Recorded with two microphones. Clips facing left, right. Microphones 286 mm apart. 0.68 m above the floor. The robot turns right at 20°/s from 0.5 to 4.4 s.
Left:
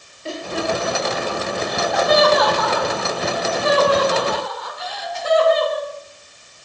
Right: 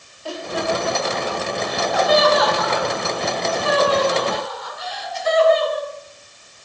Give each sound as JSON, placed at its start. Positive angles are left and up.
{"t": 0.2, "sound": "laughter", "side_deg": 25, "distance_m": 2.5}